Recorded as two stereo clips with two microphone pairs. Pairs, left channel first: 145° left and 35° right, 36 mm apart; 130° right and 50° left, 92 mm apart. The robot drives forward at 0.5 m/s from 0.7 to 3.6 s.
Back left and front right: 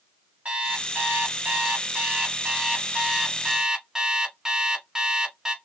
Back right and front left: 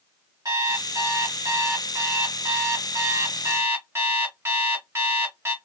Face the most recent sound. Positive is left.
turn(degrees=30)